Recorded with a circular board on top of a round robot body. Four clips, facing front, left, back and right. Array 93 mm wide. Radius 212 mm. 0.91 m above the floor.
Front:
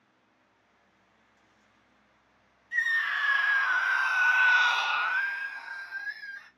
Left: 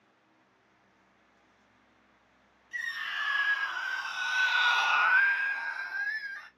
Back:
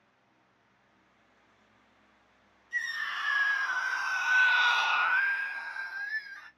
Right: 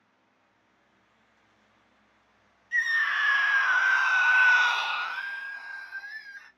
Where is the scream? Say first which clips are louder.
Right 10 dB, front 6 dB; 75° right, 1.4 m; by 6.5 s 105° left, 1.3 m.